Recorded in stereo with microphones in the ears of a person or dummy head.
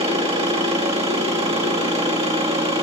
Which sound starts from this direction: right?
An engine running, at 0.0 s.